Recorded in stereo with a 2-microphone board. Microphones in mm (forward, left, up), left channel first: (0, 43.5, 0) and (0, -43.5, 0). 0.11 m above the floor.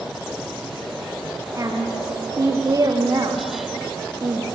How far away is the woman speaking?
About 7 m.